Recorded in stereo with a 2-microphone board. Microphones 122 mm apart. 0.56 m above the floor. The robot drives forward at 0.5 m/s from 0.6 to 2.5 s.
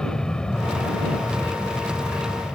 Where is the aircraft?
5° left (ahead or behind).